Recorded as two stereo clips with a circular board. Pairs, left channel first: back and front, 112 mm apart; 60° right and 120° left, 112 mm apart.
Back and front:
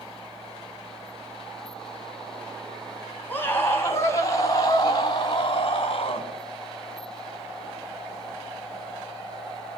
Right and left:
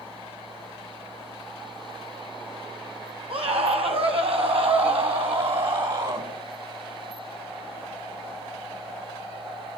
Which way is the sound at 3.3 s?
110° left.